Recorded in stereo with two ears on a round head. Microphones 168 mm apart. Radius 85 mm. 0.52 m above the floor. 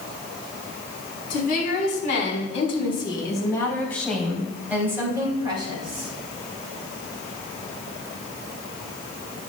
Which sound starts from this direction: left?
A woman speaking, at 1.3 s.